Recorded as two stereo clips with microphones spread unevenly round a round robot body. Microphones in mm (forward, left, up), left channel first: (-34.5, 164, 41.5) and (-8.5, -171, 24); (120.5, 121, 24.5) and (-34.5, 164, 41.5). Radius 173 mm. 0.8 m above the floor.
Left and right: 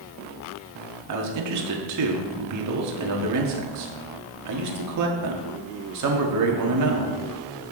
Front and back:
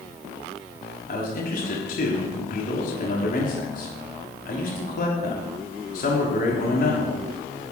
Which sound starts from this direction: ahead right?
A man speaking, at 1.1 s.